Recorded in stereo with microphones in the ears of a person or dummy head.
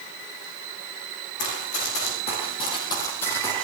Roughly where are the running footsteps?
Left.